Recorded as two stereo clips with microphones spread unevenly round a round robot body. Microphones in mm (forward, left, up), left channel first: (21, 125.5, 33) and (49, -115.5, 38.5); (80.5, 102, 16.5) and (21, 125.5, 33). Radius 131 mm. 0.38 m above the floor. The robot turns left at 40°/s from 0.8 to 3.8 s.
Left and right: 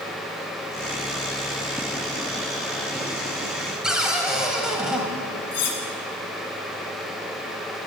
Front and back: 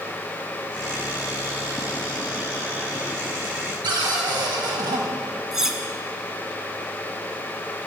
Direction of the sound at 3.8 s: 170° right.